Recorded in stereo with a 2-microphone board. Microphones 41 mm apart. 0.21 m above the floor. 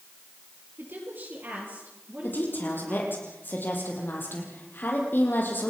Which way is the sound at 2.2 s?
55° left (ahead or behind).